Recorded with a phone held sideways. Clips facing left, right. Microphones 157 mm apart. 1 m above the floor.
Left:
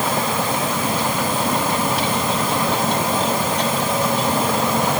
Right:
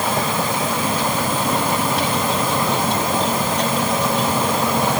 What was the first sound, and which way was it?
Only background noise.